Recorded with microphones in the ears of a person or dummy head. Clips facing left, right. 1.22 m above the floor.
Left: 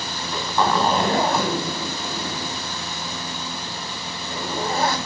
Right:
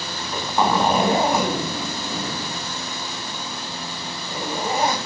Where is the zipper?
15° right (ahead or behind), 2.5 m.